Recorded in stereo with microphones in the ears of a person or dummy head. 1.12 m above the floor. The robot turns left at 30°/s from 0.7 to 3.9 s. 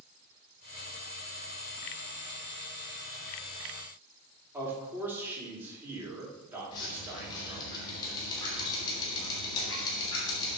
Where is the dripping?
25° left (ahead or behind), 3 m.